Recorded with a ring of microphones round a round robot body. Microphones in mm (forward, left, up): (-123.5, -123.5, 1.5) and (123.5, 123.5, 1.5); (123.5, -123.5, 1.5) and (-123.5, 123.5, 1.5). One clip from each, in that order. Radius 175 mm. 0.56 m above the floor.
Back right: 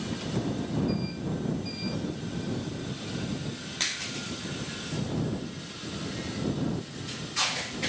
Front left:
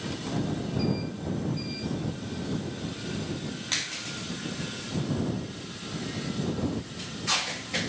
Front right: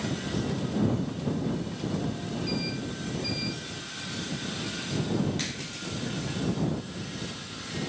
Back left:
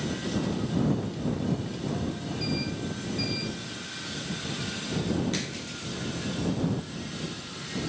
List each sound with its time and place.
Only background noise.